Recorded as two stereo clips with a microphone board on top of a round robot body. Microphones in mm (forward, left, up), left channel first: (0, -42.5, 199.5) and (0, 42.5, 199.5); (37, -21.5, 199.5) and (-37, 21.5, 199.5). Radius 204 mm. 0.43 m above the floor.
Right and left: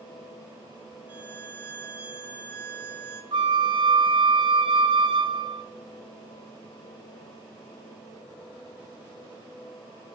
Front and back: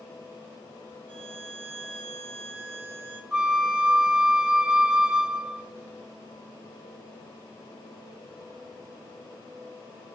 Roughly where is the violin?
Behind.